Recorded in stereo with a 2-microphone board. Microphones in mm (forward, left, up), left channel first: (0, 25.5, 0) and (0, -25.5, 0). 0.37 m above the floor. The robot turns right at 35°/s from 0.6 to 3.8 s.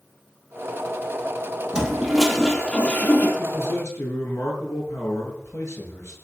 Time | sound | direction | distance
1.7 | a toilet flushing | 15° right | 3.5 m
3.4 | a man speaking | 65° left (ahead or behind) | 7 m